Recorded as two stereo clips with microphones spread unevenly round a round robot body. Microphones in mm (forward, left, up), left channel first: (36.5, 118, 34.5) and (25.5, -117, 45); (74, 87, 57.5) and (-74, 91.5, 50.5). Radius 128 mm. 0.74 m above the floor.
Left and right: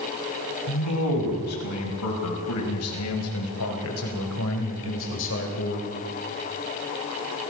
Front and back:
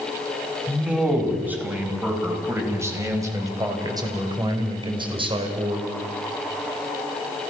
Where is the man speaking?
95° left, 6.5 m; by 5.9 s 130° left, 4 m.